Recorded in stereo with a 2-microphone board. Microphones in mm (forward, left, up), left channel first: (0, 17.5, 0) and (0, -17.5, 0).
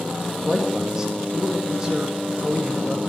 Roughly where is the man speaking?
Centre.